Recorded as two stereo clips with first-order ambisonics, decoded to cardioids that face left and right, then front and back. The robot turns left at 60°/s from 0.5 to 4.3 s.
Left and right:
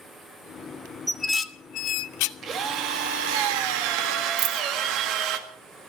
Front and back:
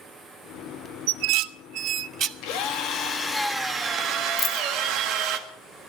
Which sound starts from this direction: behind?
Dishes clattering, at 1.1 s.